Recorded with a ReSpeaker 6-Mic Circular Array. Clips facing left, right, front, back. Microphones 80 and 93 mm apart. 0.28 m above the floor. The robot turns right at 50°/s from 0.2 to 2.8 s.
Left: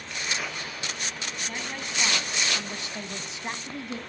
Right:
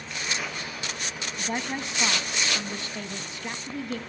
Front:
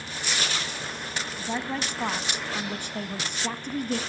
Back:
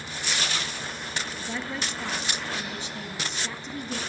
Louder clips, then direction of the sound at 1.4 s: Right 8 dB, front 5 dB; 50° right.